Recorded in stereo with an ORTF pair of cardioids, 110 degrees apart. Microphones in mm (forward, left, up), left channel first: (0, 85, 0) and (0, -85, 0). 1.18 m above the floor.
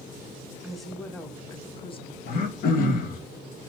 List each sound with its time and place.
0.6 s a woman speaking: 5° right, 1.4 m; by 2.2 s 40° left, 1.2 m
2.3 s throat clearing: 65° left, 1.3 m